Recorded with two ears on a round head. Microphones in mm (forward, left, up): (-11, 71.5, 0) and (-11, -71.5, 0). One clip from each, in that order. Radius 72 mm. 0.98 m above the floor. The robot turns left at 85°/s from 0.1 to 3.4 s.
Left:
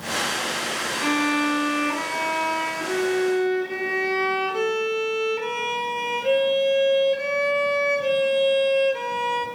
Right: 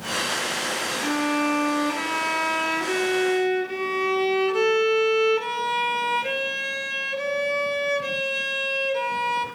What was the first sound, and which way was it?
A violin, 60° left.